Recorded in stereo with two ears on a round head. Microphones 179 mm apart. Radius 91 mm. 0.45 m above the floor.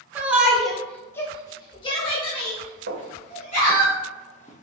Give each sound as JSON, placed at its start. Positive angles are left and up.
{"t": 0.1, "sound": "a shout", "side_deg": -10, "distance_m": 0.9}
{"t": 2.9, "sound": "footsteps", "side_deg": -65, "distance_m": 1.5}